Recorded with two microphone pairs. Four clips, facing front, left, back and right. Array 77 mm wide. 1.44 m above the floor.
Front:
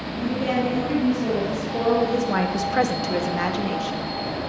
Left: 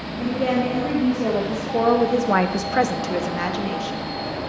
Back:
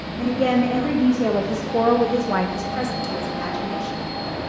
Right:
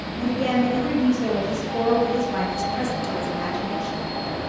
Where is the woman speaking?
165° left, 2.5 m; by 4.0 s 15° left, 1.9 m.